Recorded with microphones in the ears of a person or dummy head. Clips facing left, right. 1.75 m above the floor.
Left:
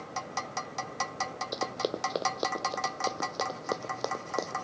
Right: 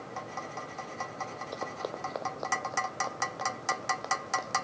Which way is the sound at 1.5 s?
30° left (ahead or behind).